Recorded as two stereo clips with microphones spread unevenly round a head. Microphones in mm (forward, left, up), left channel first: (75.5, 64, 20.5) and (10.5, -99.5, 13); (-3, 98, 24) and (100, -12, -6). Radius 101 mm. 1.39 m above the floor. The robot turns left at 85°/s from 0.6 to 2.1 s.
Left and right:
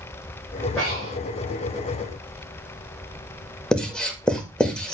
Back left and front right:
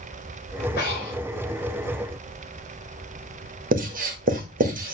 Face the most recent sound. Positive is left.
turn(degrees=-15)